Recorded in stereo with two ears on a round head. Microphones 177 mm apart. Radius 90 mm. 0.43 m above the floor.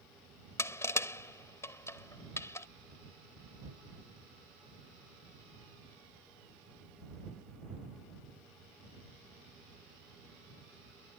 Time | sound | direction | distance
0.6 | crushing | 15° left (ahead or behind) | ?